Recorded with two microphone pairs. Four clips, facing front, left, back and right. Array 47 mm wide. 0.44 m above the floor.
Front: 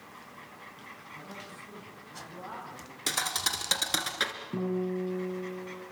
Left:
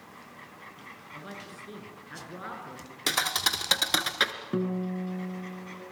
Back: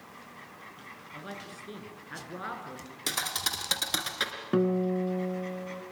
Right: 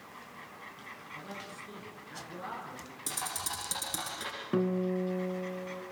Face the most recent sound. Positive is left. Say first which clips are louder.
# right 2 dB, back 6 dB
turn(degrees=-165)